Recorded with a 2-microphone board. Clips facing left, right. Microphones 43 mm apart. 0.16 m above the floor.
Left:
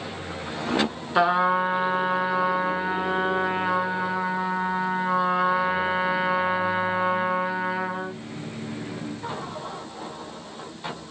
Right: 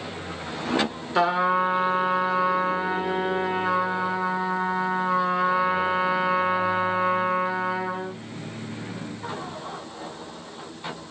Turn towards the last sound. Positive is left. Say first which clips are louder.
# left 1 dB
turn(degrees=15)  # may be behind; listen again after turning